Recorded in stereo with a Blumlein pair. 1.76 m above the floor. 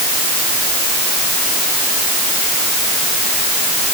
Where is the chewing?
I don't hear chewing.